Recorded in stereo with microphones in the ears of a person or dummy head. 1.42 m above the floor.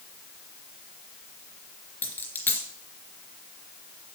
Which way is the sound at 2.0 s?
10° left (ahead or behind).